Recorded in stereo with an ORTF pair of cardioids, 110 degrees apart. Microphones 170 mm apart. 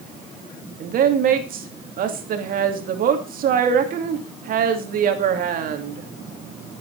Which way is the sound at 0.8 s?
60° right.